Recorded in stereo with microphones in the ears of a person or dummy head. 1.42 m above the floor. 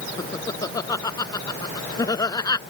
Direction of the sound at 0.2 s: 25° left (ahead or behind).